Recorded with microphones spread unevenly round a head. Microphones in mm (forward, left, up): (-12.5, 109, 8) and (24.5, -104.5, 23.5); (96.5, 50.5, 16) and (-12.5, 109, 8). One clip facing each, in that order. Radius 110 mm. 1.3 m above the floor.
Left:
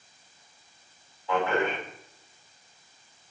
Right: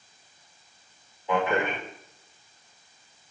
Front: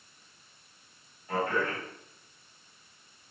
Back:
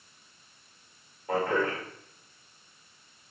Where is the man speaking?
155° right, 2.5 m.